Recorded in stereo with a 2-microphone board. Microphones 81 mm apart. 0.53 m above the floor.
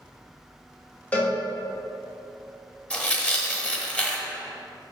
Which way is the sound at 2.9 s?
15° left (ahead or behind).